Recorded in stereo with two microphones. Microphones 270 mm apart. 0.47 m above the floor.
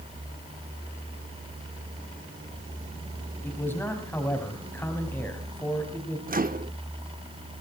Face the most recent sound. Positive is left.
turn(degrees=-35)  # may be behind; listen again after turning